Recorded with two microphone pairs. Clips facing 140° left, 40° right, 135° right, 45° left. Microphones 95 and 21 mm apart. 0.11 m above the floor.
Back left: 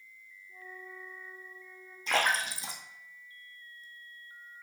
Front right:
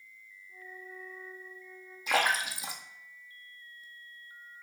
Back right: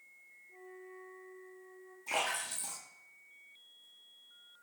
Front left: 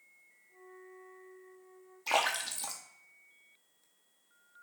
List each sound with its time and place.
0.5 s a flute: 125° right, 3 m
2.1 s a splash: 45° left, 1.3 m